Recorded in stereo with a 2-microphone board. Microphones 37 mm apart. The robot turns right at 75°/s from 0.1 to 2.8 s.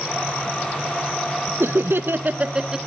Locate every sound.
1.6 s laughter: 100° right, 0.8 m; by 2.8 s 10° right, 0.8 m